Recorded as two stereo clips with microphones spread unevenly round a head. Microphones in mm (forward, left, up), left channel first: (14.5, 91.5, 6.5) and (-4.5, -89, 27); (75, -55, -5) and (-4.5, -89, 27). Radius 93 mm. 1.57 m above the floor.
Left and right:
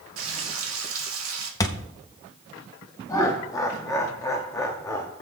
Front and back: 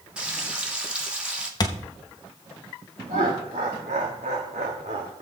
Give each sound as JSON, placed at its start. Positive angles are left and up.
{"t": 0.2, "sound": "frying", "azimuth_deg": -85, "distance_m": 2.0}
{"t": 1.6, "sound": "a thud", "azimuth_deg": 25, "distance_m": 0.8}
{"t": 3.1, "sound": "laughter", "azimuth_deg": 160, "distance_m": 0.8}